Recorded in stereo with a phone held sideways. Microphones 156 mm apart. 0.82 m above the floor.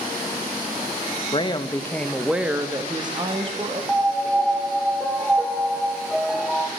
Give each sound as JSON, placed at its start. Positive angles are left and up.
{"t": 1.3, "sound": "a woman speaking", "side_deg": 35, "distance_m": 0.8}
{"t": 3.9, "sound": "a piano", "side_deg": 0, "distance_m": 0.6}